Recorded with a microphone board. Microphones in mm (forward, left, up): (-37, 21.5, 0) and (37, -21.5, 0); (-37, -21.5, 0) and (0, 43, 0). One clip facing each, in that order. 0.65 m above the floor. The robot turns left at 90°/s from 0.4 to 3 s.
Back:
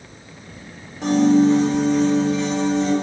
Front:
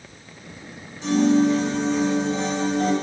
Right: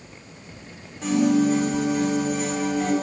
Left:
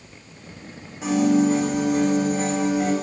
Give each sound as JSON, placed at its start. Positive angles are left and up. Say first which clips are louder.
{"t": 1.0, "sound": "a piano", "louder": "back 3 dB, left 1 dB", "azimuth_deg": 145, "distance_m": 2.5}